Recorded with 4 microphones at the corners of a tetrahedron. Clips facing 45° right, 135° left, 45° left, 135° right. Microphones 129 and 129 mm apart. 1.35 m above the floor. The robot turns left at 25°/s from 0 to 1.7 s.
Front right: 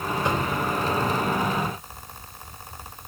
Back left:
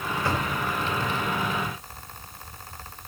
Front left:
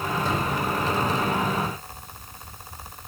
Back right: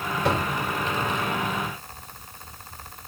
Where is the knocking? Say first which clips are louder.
Front right 2 dB, back right 5 dB; 115° right, 5.5 m; by 0.5 s 120° right, 5.5 m.